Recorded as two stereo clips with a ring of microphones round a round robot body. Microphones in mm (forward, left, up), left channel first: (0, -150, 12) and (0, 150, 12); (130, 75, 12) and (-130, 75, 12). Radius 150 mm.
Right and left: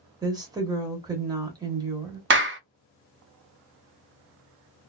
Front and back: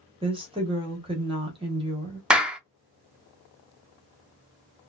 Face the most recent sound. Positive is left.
turn(degrees=95)